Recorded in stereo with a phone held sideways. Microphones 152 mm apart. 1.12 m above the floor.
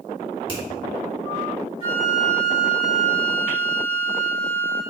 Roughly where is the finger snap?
Left.